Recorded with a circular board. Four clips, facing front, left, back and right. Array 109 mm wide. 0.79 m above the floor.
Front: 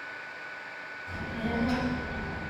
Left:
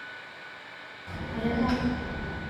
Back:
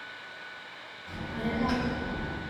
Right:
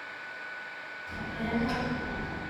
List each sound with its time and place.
1.1 s a child speaking: 90° left, 0.9 m; by 2.4 s 165° right, 0.7 m